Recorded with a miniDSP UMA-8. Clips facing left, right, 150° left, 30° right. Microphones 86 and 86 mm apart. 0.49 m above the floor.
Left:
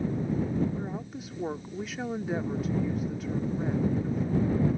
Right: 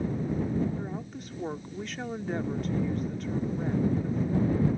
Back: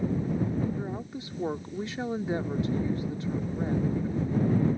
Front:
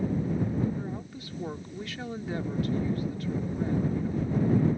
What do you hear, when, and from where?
0.8 s a woman speaking: 170° left